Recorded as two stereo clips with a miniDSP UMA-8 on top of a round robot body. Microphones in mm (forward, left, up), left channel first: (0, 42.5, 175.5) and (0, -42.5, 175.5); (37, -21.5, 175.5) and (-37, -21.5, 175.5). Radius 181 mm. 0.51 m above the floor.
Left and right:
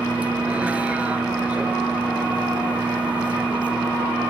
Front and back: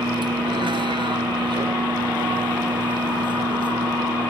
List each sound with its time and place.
0.0 s a vehicle: 165° right